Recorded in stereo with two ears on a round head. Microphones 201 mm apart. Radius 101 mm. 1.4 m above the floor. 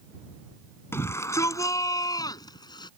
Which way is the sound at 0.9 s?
10° left (ahead or behind).